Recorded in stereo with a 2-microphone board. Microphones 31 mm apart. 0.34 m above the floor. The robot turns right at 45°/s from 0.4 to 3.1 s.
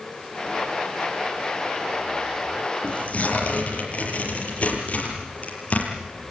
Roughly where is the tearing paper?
Left.